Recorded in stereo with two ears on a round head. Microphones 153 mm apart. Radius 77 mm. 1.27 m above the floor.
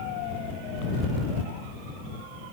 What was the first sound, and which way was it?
Only background noise.